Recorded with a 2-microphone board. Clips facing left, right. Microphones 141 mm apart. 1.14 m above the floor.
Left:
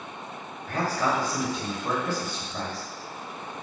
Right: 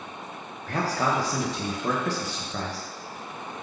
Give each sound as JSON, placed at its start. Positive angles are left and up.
{"t": 0.7, "sound": "a man speaking", "side_deg": -80, "distance_m": 0.7}